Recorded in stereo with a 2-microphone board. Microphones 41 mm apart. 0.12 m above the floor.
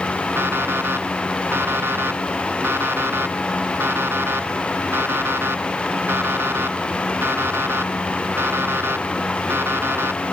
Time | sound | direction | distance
0.4 | an alarm clock | 75° right (ahead or behind) | ?